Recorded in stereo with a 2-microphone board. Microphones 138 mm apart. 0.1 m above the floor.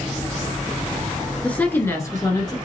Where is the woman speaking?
10° left (ahead or behind), 1.3 m; by 2.5 s 30° left (ahead or behind), 1.4 m.